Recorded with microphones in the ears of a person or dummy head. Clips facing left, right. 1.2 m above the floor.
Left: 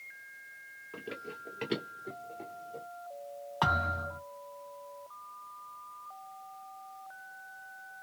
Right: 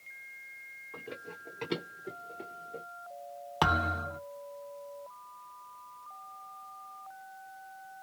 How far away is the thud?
About 0.9 m.